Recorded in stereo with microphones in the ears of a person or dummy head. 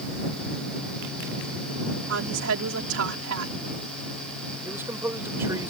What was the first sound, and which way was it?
A woman speaking, 90° right.